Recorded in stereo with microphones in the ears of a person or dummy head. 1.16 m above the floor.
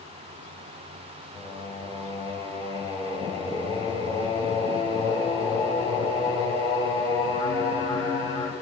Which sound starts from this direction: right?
Singing, at 1.3 s.